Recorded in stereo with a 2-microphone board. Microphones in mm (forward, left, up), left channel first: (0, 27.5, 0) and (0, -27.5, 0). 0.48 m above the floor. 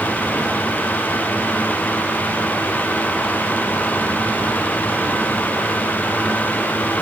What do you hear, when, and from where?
Only background noise.